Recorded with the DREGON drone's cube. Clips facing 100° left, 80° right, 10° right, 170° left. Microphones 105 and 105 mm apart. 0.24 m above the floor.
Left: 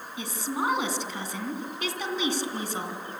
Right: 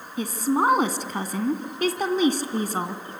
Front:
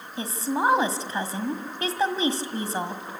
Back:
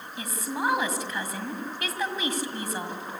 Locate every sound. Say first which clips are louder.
0.2 s a woman speaking: right 8 dB, front 5 dB; 60° right, 1.7 m